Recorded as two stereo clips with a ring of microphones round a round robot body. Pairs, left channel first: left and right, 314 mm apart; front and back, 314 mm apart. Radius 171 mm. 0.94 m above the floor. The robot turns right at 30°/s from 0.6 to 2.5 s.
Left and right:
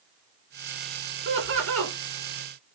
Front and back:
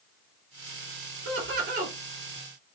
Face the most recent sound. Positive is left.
turn(degrees=-95)